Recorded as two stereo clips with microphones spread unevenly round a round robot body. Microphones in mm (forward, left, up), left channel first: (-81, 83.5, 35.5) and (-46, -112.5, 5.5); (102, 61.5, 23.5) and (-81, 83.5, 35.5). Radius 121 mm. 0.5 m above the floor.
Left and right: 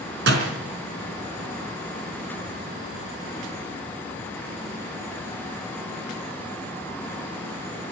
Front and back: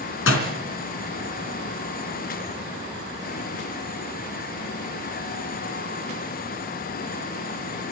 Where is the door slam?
35° right, 3.5 m.